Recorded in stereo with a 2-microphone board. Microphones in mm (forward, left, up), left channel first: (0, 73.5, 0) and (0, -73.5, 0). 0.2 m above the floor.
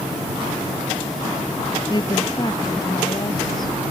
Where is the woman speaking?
30° left (ahead or behind).